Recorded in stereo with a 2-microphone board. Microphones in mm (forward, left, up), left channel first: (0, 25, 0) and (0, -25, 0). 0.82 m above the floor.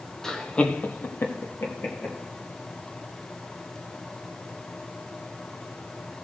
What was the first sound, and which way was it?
Laughter, 10° left (ahead or behind).